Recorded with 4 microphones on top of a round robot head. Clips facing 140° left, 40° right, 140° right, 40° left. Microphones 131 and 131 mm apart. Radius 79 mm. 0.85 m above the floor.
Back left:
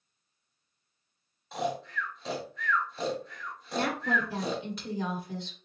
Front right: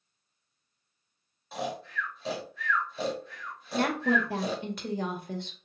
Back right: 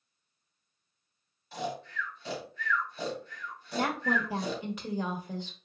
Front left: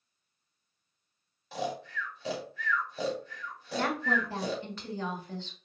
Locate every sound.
1.5 s snoring: 50° left, 1.4 m
3.7 s a woman speaking: 65° right, 1.3 m